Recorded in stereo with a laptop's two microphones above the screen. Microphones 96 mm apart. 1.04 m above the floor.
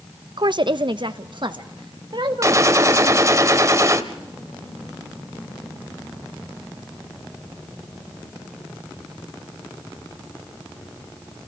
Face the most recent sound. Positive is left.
turn(degrees=-35)  # may be behind; listen again after turning